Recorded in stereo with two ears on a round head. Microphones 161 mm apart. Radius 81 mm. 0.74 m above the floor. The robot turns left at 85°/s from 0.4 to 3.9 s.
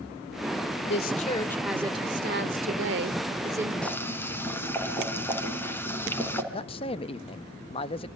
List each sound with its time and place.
0.9 s a woman speaking: 65° left, 2 m; by 3.7 s 175° right, 2 m
3.8 s boiling: 5° left (ahead or behind), 3 m; by 6.4 s 15° left (ahead or behind), 3 m
6.5 s a man speaking: 30° left (ahead or behind), 0.7 m